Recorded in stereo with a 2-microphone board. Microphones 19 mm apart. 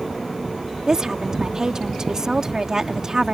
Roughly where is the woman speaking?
Right.